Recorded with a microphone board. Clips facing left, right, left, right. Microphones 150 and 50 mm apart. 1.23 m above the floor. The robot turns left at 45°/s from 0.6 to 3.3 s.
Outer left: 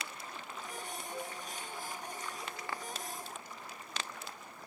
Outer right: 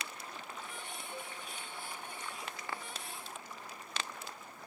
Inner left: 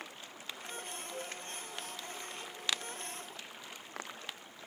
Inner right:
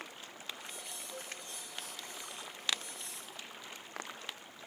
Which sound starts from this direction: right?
A flute, at 1.1 s.